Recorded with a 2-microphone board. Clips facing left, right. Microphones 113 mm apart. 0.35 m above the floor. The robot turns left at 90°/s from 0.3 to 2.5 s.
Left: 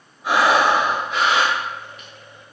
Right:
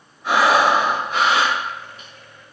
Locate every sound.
0.2 s breathing: 15° left, 0.9 m; by 2.1 s 145° right, 0.9 m